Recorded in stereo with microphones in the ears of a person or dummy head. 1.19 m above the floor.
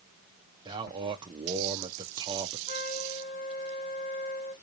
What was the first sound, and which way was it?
A man speaking, 25° right (ahead or behind).